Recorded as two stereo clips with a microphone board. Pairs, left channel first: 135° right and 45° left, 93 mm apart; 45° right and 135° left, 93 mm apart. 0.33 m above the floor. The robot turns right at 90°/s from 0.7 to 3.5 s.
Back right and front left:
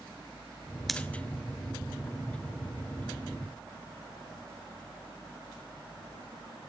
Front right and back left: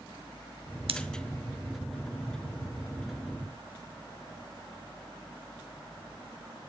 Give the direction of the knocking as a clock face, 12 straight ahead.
I don't hear knocking.